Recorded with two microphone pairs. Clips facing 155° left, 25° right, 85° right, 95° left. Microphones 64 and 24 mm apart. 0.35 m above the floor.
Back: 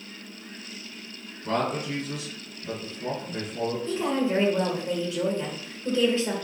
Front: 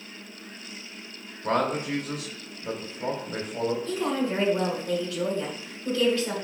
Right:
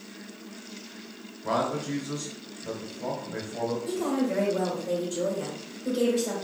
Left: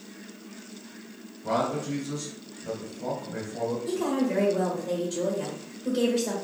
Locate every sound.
1.4 s a man speaking: 5° right, 1.6 m
3.9 s a woman speaking: 160° left, 1.4 m